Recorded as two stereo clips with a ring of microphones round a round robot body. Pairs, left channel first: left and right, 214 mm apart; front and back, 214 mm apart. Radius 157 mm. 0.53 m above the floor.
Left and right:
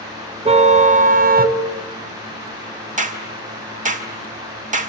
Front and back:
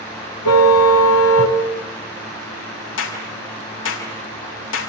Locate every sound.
0.5 s a car horn: 30° right, 2.5 m; by 1.6 s 45° right, 1.7 m
3.0 s a clap: 35° right, 4 m